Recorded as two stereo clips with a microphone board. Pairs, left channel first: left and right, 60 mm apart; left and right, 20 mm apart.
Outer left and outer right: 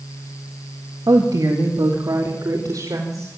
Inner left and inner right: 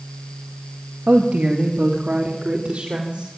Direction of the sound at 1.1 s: 80° right.